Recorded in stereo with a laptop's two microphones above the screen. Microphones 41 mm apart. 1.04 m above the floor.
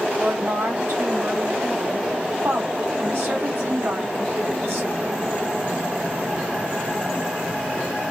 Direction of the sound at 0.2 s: 65° right (ahead or behind).